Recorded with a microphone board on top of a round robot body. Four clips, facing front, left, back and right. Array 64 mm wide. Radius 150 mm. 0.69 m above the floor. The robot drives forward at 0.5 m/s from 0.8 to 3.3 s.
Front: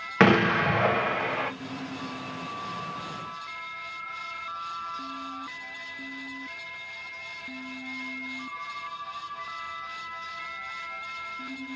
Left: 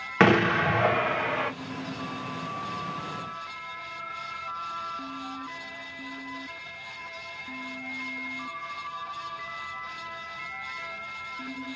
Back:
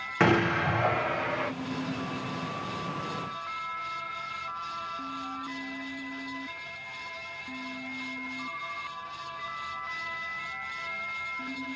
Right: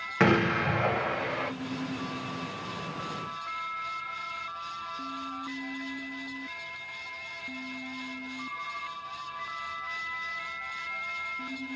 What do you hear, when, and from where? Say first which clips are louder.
0.2 s an explosion: left 4 dB, front 4 dB; 45° left, 1.3 m; by 1.5 s 65° left, 1.2 m